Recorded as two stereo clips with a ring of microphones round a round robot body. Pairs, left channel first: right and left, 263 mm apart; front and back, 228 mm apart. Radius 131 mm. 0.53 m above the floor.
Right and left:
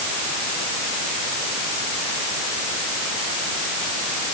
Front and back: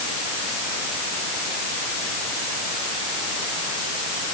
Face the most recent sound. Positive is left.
No sound to turn to.